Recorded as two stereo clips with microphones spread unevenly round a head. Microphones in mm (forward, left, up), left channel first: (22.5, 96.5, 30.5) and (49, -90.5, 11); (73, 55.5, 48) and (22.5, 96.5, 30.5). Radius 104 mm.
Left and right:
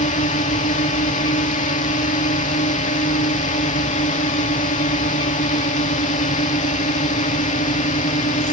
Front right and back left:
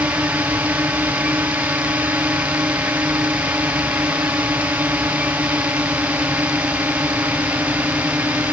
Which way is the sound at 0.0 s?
125° left.